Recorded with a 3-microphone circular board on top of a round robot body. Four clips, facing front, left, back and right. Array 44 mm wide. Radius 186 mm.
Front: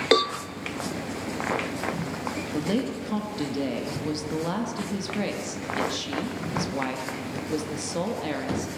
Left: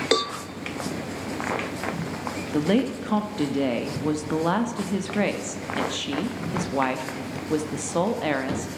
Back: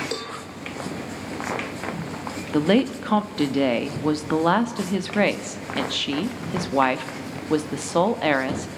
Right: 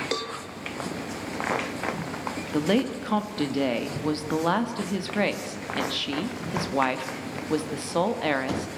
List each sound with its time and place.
0.1 s a cowbell: 15° left, 0.9 m
2.5 s a woman speaking: straight behind, 2 m